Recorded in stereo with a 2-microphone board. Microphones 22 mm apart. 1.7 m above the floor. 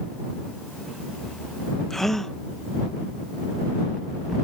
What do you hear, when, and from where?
1.9 s a gasp: 15° left (ahead or behind)